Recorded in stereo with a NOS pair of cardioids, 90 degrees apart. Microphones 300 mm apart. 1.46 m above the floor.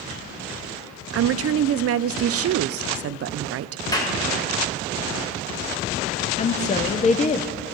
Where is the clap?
15° left, 1.5 m.